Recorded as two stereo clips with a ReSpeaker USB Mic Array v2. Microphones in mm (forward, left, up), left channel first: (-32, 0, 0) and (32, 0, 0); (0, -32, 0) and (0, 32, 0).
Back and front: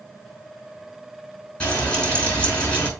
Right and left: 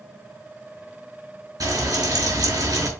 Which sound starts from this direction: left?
Frying, at 1.6 s.